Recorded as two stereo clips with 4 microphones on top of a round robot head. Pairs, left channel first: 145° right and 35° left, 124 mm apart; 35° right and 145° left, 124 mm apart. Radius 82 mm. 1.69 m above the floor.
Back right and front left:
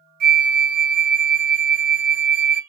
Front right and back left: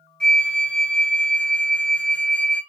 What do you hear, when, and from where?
0.2 s a flute: 45° left, 0.6 m